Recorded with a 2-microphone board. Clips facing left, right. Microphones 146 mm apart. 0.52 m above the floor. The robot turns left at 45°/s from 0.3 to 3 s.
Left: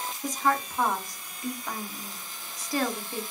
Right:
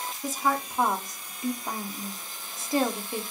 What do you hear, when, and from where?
0.2 s a woman speaking: 5° right (ahead or behind), 0.7 m; by 3.2 s 20° right (ahead or behind), 0.7 m